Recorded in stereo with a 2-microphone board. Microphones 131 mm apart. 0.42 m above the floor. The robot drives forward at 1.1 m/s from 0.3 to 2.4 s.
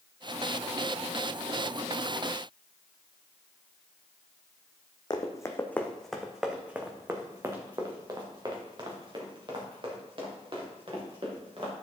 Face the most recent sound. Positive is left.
turn(degrees=-45)  # may be behind; listen again after turning